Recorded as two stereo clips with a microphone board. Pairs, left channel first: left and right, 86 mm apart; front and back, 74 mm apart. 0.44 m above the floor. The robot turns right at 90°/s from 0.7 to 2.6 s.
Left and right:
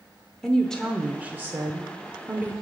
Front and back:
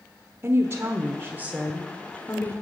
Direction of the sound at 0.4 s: 165° left.